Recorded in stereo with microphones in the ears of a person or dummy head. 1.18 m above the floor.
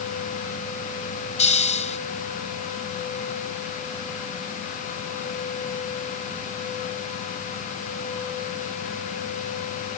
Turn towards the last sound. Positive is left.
turn(degrees=40)  # may be behind; listen again after turning